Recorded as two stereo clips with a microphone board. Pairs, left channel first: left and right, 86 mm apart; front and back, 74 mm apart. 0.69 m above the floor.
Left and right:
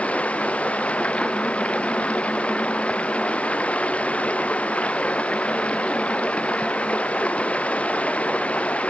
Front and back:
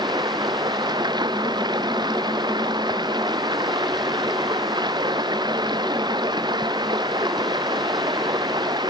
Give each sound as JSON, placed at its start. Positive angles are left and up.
{"t": 0.0, "sound": "running water", "azimuth_deg": 165}